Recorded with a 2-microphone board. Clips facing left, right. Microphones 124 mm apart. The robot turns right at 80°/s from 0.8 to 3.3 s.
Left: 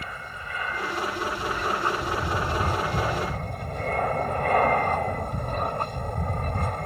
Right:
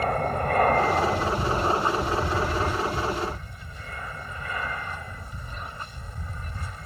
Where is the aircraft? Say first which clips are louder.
Right 13 dB; 105° right; by 6.9 s 95° left.